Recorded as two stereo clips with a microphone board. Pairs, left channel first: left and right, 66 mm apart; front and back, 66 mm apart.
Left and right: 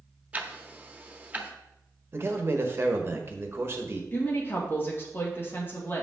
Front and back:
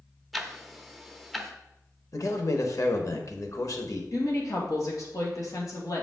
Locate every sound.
0.3 s ticking: 85° right, 0.8 m
2.1 s a man speaking: 35° right, 1.2 m
4.1 s a woman speaking: 35° left, 2 m